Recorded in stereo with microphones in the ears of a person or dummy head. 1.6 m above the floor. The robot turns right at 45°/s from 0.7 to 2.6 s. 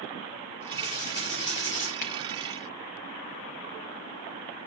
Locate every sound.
0.7 s writing: 50° left, 2.5 m; by 1.9 s 100° left, 2.5 m
2.0 s a finger snap: 45° left (ahead or behind), 0.8 m; by 2.1 s 50° left (ahead or behind), 0.8 m